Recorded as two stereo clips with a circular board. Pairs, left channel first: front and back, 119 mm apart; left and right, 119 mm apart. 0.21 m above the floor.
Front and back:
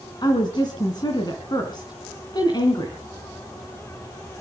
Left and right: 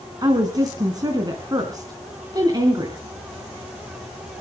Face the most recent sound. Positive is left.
turn(degrees=-40)